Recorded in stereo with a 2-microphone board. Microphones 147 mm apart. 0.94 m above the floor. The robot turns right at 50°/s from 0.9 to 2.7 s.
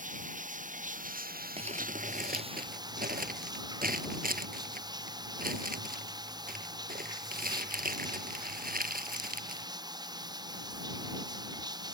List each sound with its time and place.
0.0 s running water: 120° right; by 11.9 s 30° right
1.6 s crumpling: 45° right (ahead or behind); by 9.7 s 80° right